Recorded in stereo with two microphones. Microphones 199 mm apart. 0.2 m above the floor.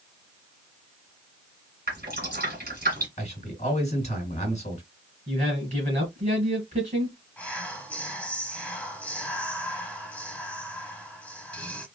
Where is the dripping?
50° right (ahead or behind), 1.9 m.